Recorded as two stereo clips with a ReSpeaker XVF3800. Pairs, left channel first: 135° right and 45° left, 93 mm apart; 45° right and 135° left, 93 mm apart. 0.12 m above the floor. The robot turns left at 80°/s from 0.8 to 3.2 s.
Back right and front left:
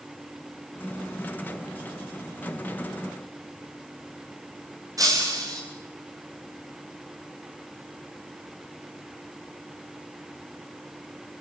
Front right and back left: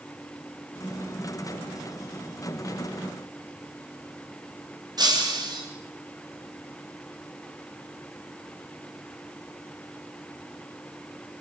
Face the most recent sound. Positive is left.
turn(degrees=95)